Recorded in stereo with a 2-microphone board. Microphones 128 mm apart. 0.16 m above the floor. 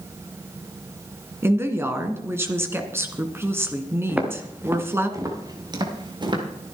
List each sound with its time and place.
1.4 s a woman speaking: 20° right (ahead or behind), 1.9 m
4.1 s footsteps: 10° right (ahead or behind), 3 m; by 6.4 s 40° right (ahead or behind), 4.5 m